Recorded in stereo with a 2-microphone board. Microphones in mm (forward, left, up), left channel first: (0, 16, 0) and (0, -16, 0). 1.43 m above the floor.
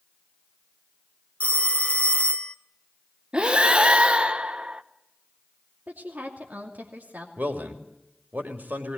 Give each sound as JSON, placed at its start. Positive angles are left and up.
{"t": 1.4, "sound": "a phone ringing", "side_deg": 40, "distance_m": 0.9}
{"t": 3.3, "sound": "breathing", "side_deg": -30, "distance_m": 1.0}
{"t": 5.9, "sound": "a woman speaking", "side_deg": -70, "distance_m": 3.0}
{"t": 7.4, "sound": "a man speaking", "side_deg": -65, "distance_m": 3.0}